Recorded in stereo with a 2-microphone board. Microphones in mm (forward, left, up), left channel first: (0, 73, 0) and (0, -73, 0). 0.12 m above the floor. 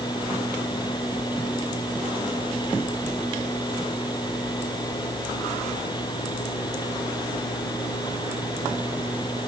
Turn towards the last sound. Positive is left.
No sound to turn to.